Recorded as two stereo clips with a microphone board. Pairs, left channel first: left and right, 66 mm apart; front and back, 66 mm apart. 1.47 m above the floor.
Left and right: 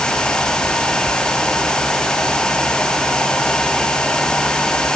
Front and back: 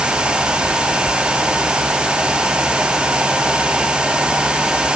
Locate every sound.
Only background noise.